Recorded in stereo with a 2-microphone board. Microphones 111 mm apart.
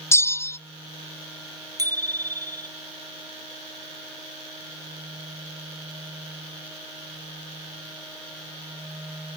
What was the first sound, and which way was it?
A bell, 25° left (ahead or behind).